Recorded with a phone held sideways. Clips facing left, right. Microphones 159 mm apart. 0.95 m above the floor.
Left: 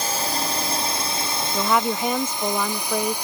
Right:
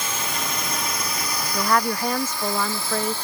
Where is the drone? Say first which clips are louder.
Left 3 dB; 40° left (ahead or behind); by 3.3 s 15° left (ahead or behind).